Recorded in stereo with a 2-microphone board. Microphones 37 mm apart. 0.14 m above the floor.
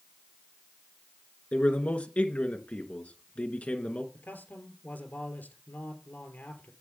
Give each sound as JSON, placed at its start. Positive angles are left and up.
{"t": 1.5, "sound": "a man speaking", "side_deg": 40, "distance_m": 1.9}
{"t": 4.1, "sound": "a man speaking", "side_deg": 60, "distance_m": 3.0}